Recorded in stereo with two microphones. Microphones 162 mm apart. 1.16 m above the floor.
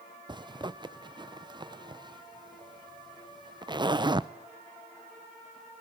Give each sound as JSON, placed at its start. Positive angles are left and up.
{"t": 0.3, "sound": "a zipper", "side_deg": -30, "distance_m": 0.5}